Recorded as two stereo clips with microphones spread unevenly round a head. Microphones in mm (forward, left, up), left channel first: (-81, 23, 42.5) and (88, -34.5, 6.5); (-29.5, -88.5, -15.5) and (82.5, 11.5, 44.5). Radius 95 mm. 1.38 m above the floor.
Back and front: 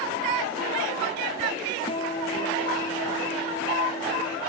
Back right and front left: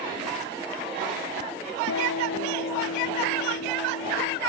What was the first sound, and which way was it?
A guitar, 145° right.